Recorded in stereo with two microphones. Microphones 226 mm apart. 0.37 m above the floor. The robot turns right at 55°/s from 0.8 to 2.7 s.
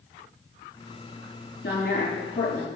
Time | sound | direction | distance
1.6 | a woman speaking | 120° left | 4 m